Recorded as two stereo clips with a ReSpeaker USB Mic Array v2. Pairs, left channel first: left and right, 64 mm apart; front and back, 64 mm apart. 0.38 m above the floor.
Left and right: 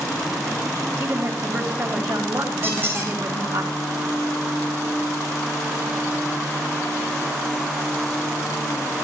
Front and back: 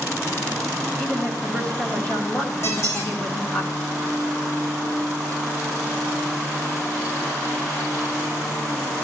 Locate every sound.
1.0 s a woman speaking: 70° right, 4.5 m
2.6 s a squeak: 40° right, 5.5 m